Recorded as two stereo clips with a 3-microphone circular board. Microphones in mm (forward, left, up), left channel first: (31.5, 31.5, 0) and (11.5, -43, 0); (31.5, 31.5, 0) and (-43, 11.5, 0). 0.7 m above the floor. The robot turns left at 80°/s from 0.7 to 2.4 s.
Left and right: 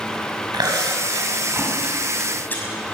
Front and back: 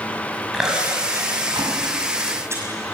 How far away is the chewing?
About 6 m.